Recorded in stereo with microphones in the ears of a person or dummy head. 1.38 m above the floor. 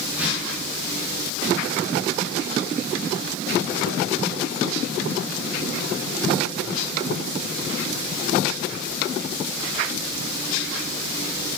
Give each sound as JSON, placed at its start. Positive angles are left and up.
{"t": 0.1, "sound": "a whoosh", "side_deg": -15, "distance_m": 4.5}